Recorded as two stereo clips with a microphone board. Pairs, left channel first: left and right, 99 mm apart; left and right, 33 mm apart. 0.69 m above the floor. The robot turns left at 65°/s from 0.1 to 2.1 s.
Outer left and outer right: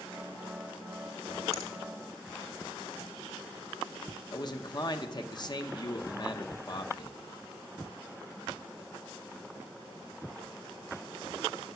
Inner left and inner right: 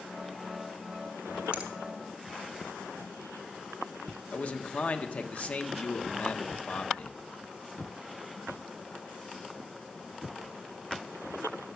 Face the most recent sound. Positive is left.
turn(degrees=45)  # may be behind; listen again after turning